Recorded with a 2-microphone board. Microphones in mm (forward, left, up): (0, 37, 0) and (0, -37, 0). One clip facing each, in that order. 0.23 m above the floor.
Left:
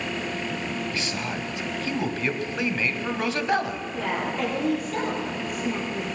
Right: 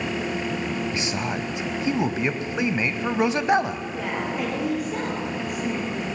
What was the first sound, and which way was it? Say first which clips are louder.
A man speaking: right 3 dB; 20° right (ahead or behind).